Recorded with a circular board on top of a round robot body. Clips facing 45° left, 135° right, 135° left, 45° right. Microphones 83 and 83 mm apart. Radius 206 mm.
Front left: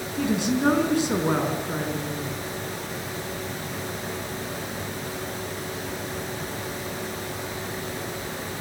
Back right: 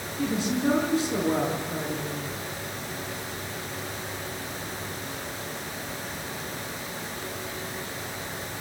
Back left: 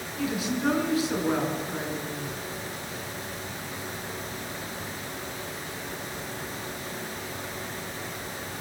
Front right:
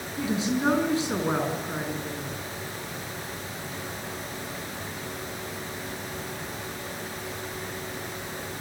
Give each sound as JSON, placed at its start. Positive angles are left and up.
{"t": 0.2, "sound": "a woman speaking", "azimuth_deg": 15, "distance_m": 5.0}